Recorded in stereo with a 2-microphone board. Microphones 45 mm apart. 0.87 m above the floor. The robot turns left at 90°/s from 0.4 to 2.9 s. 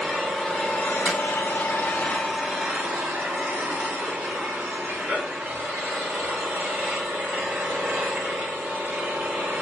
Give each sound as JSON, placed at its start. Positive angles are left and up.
{"t": 0.0, "sound": "an engine running", "azimuth_deg": 175, "distance_m": 1.0}
{"t": 1.1, "sound": "hammering", "side_deg": -35, "distance_m": 1.6}